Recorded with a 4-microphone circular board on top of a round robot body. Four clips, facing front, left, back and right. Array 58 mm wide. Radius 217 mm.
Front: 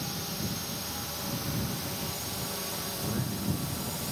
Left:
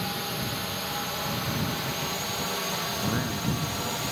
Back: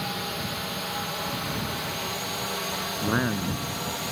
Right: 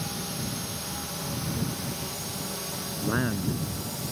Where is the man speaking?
165° right.